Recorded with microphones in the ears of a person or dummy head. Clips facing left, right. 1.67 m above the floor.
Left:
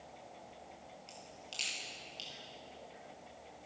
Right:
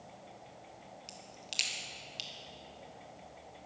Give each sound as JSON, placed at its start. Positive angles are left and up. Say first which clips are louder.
{"t": 1.1, "sound": "a crack", "louder": "right 1 dB", "side_deg": -20, "distance_m": 1.8}